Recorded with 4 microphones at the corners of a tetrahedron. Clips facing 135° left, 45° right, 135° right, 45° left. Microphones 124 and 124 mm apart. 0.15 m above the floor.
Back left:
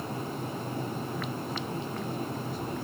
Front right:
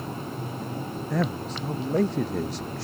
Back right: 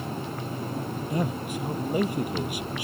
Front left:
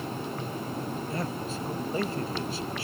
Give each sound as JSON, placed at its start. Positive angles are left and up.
{"t": 1.1, "sound": "a man speaking", "azimuth_deg": -60}